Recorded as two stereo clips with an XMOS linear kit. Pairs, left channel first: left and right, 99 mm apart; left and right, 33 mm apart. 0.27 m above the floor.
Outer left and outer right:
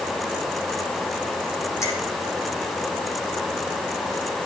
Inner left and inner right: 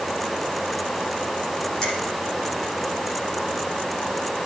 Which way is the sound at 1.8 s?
30° left (ahead or behind).